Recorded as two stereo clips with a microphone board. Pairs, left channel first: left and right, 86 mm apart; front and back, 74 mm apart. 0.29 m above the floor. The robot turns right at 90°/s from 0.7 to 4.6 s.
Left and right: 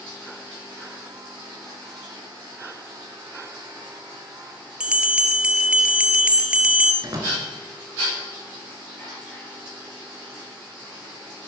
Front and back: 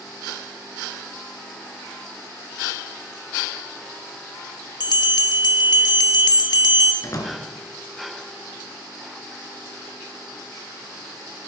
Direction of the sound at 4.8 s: 10° right.